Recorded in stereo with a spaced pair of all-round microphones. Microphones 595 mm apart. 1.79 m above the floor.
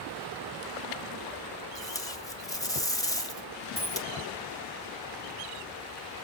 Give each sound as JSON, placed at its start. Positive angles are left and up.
{"t": 1.8, "sound": "tape being pulled", "side_deg": 5, "distance_m": 0.5}
{"t": 3.8, "sound": "a dropped coin", "side_deg": -20, "distance_m": 1.7}